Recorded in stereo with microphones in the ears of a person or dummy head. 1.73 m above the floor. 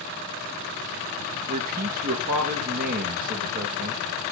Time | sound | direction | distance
1.5 | a man speaking | 45° right (ahead or behind) | 2.5 m